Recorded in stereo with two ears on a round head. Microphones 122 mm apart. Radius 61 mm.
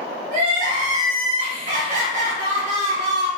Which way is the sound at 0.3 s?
55° right (ahead or behind).